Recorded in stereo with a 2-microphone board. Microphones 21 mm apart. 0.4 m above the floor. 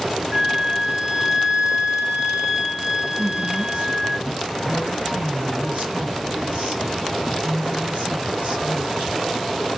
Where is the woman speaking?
65° right (ahead or behind), 1.8 m.